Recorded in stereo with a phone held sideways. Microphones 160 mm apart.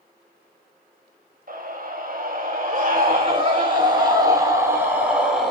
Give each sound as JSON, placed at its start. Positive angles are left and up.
{"t": 1.5, "sound": "a scream", "side_deg": -60, "distance_m": 5.5}